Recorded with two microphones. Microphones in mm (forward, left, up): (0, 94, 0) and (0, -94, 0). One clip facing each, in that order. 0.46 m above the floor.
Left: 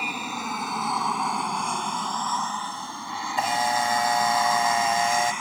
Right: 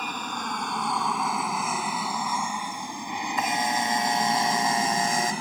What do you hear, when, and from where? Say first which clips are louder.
0.0 s an aircraft: left 1 dB; 10° left (ahead or behind); by 5.4 s 35° right (ahead or behind)
3.4 s a camera shutter: left 3 dB; 30° left (ahead or behind)